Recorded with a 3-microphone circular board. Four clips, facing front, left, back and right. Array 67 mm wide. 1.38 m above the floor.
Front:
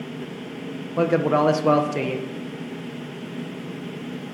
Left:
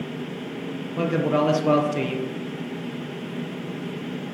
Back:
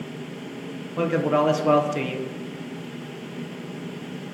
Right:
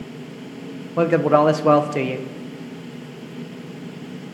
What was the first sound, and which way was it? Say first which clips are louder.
A man speaking: right 6 dB, front 2 dB; 65° right.